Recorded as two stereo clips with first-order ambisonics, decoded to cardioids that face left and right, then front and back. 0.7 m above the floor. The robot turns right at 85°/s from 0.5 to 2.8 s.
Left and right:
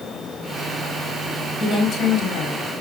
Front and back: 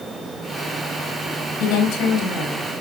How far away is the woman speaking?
About 4.5 m.